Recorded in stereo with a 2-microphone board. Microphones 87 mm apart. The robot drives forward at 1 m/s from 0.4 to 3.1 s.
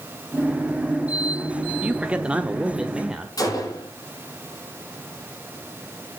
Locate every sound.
1.8 s a man speaking: 15° right (ahead or behind), 0.9 m; by 3.3 s 10° right (ahead or behind), 1.4 m
3.4 s a gunshot: 45° left (ahead or behind), 8 m